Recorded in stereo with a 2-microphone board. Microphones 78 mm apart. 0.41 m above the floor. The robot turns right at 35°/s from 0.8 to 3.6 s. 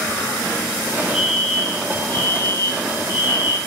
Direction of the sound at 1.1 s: Straight ahead.